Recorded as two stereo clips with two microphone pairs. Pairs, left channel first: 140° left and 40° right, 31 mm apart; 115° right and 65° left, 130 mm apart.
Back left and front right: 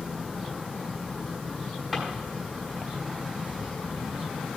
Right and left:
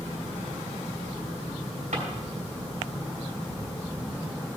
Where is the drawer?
50° left, 4.5 m.